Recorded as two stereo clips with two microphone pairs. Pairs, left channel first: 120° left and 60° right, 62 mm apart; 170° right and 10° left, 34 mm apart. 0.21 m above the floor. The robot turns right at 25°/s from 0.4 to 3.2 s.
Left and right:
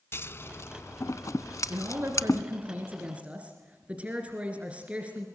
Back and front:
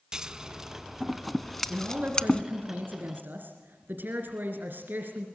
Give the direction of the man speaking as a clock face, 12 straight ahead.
1 o'clock.